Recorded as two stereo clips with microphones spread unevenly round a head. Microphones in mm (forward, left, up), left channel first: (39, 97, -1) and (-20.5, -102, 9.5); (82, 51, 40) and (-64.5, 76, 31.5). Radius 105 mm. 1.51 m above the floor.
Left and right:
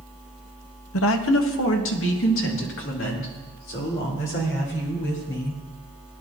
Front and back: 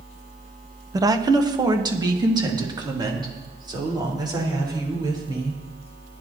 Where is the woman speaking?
100° left, 0.9 m; by 5.6 s 110° left, 6.5 m.